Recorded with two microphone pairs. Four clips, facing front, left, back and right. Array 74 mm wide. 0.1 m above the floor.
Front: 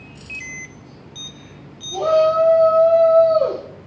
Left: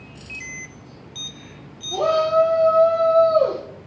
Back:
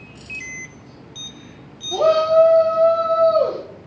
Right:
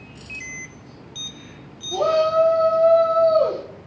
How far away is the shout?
About 3.5 m.